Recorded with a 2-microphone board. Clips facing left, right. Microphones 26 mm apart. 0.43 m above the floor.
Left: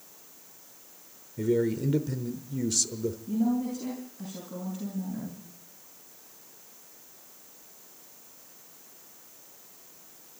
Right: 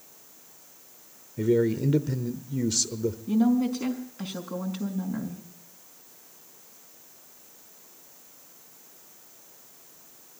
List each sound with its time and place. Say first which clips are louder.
1.4 s a man speaking: right 3 dB; 20° right (ahead or behind), 1.0 m
3.3 s a woman speaking: right 5 dB; 65° right (ahead or behind), 5 m